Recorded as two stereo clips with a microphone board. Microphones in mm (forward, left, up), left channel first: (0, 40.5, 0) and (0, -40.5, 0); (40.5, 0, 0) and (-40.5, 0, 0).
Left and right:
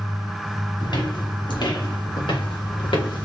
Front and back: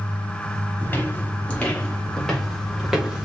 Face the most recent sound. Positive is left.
turn(degrees=100)